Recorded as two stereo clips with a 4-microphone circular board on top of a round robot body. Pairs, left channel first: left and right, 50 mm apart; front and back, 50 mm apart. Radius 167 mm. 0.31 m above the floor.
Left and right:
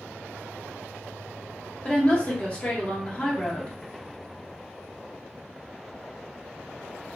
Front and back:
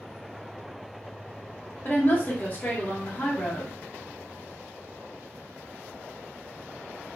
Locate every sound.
1.9 s a woman speaking: 35° left, 1.2 m